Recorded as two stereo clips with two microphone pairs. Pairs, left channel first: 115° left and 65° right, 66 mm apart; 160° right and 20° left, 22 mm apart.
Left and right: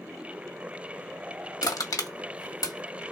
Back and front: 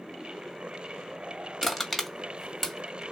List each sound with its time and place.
1.6 s crushing: 120° left, 1.8 m